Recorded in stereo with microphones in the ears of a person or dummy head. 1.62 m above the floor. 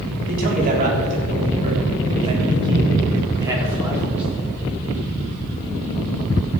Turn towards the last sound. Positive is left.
turn(degrees=-5)  # may be behind; listen again after turning